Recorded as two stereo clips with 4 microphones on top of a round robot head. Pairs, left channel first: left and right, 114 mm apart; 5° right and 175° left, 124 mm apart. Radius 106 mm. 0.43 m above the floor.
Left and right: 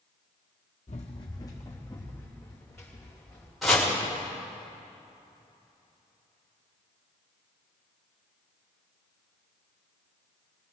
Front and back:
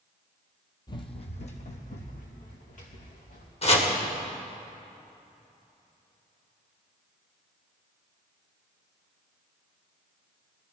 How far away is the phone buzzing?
I don't hear a phone buzzing.